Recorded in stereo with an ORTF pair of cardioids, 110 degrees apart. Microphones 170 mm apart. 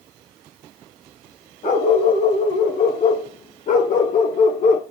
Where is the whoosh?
No whoosh in this recording.